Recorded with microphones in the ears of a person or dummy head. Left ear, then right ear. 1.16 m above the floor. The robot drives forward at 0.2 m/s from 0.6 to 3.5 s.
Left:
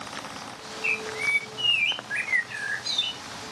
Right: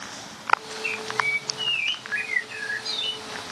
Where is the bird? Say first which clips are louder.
Even; 15° left (ahead or behind), 0.5 m; by 3.2 s 10° left (ahead or behind), 0.8 m.